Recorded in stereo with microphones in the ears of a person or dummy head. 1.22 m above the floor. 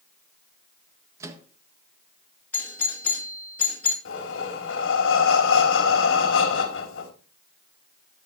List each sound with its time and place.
1.2 s a microwave: 20° right (ahead or behind), 1.5 m
2.5 s a doorbell: 10° left (ahead or behind), 2.5 m
4.0 s breathing: 85° left, 2.5 m